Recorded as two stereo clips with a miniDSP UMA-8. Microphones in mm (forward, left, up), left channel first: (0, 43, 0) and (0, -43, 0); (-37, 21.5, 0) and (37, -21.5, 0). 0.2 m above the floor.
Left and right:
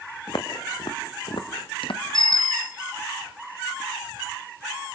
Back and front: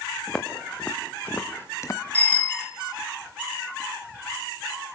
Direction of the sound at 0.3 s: 65° left.